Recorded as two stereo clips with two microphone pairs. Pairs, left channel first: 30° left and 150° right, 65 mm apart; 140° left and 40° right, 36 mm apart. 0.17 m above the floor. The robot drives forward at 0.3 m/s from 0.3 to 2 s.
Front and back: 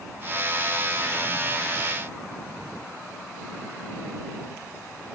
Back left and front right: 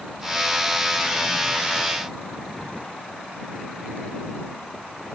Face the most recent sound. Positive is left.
No sound to turn to.